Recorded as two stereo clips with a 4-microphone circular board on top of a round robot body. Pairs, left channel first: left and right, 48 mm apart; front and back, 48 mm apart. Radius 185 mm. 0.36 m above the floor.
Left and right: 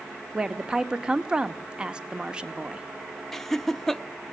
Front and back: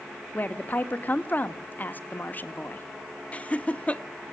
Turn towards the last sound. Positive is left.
turn(degrees=15)